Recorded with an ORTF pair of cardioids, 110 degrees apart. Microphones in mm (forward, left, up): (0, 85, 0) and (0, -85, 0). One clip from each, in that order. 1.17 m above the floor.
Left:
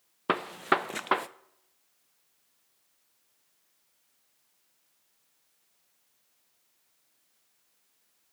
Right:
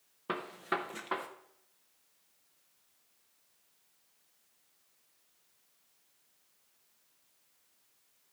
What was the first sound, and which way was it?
A gunshot, 45° left.